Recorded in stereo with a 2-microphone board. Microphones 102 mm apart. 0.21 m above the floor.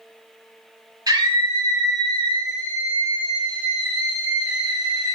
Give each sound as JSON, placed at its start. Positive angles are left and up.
{"t": 1.1, "sound": "a scream", "side_deg": -35, "distance_m": 1.9}